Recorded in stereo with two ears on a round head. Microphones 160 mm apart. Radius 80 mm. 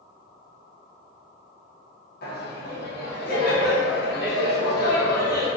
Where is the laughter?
55° left (ahead or behind), 0.8 m.